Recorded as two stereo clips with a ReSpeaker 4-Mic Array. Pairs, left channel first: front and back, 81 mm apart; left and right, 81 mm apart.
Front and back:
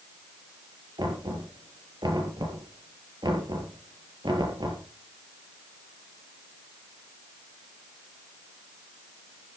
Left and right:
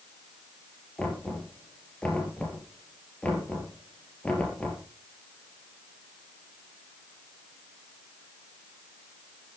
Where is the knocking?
165° left, 4.5 m.